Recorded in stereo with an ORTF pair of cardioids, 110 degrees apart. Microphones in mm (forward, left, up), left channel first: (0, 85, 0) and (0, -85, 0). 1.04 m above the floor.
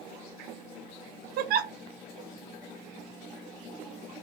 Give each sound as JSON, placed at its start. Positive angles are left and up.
{"t": 1.4, "sound": "a giggle", "azimuth_deg": -65, "distance_m": 0.5}